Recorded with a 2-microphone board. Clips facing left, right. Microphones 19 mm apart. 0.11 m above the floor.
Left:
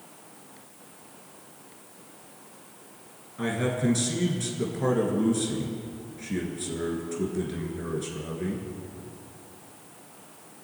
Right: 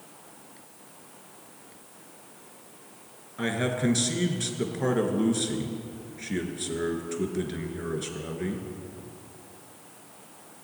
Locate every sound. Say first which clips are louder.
3.4 s a man speaking: even; 20° right (ahead or behind), 1.3 m